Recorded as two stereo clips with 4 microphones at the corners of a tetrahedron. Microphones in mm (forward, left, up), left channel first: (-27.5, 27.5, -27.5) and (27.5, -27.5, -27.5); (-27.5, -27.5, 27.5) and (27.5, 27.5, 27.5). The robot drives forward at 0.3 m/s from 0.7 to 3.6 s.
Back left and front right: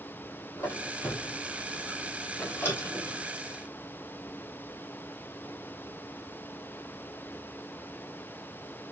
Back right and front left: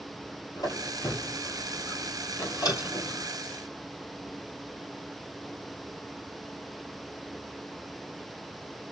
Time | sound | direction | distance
0.6 | a squeak | 165° right | 1.8 m